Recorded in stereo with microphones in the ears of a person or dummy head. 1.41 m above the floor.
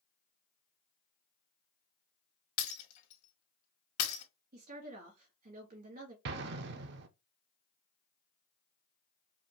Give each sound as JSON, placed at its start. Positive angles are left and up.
{"t": 2.6, "sound": "breaking glass", "side_deg": 55, "distance_m": 1.6}
{"t": 4.5, "sound": "a woman speaking", "side_deg": -50, "distance_m": 1.6}
{"t": 6.2, "sound": "an explosion", "side_deg": -70, "distance_m": 0.6}